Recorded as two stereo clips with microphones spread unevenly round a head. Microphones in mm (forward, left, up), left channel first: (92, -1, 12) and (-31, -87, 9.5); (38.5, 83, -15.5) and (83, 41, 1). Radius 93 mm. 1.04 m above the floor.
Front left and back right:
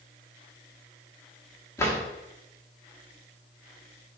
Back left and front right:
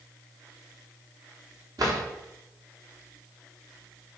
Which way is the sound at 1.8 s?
35° right.